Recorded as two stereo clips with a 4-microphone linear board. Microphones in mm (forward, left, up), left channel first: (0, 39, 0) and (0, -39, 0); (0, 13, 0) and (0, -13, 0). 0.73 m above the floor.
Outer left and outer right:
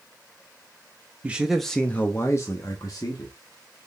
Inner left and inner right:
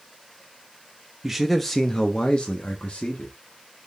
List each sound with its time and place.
1.2 s a man speaking: 15° right (ahead or behind), 0.5 m; by 3.3 s 55° left (ahead or behind), 1.0 m